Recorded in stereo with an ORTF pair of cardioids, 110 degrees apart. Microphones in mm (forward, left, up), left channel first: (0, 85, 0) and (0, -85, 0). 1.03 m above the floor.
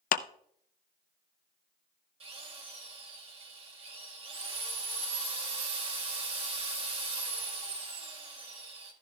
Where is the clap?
55° left, 0.7 m.